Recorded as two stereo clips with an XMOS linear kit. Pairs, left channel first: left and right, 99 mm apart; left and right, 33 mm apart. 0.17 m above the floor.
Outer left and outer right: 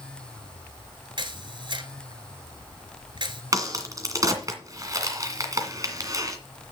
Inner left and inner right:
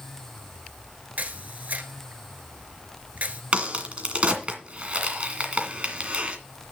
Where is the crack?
35° right (ahead or behind), 2.0 m.